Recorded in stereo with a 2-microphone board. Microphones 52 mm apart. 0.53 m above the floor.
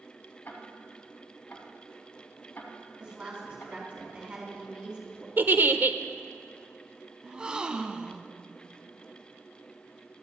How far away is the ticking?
About 1.8 m.